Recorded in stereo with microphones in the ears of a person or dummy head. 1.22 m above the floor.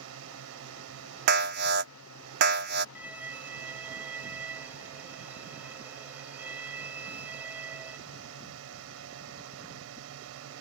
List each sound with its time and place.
0.0 s a drone: 75° right (ahead or behind)
1.3 s an alarm: 60° right (ahead or behind)
3.0 s a violin: 10° right (ahead or behind)